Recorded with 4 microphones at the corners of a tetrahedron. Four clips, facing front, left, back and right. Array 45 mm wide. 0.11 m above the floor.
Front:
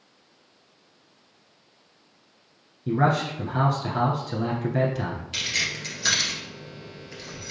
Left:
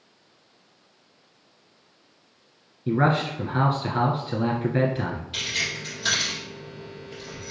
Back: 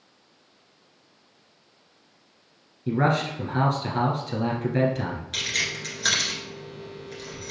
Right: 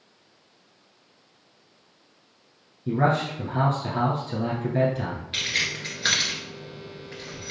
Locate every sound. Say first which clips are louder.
2.9 s a man speaking: left 1 dB, front 1 dB; 95° left, 1.2 m
5.3 s keys jangling: right 3 dB, even; 95° right, 1.4 m